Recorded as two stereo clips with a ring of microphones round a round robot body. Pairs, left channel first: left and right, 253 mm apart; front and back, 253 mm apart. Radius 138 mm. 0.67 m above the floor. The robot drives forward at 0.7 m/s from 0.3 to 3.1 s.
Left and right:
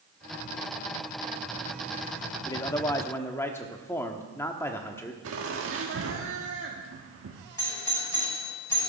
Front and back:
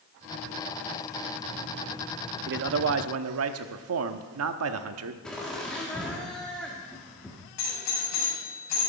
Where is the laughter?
85° right, 1.4 m.